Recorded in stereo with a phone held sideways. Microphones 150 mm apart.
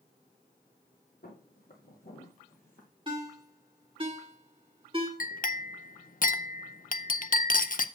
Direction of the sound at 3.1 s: 35° right (ahead or behind).